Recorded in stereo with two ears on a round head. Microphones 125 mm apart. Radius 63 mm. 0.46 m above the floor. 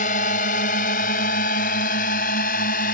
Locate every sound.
0.0 s a drone: 65° left (ahead or behind)